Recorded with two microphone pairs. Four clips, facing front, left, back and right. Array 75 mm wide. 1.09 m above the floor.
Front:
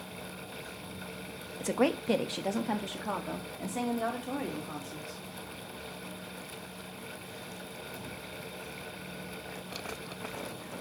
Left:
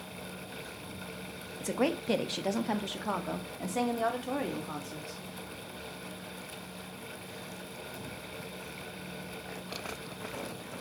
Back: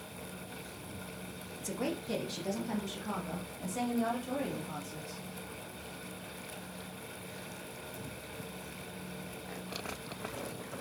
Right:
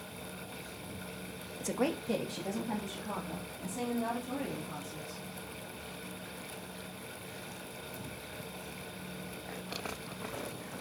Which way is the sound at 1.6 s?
5° left.